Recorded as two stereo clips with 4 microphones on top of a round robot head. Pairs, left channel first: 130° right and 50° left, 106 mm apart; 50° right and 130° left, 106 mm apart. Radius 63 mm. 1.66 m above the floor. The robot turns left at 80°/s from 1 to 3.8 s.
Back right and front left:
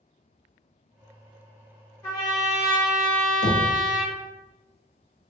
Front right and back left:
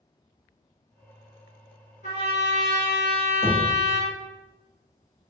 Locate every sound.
2.0 s a trumpet: 65° right, 1.9 m; by 4.1 s 155° left, 1.9 m
3.4 s knocking: 110° right, 0.6 m; by 3.6 s 125° right, 0.6 m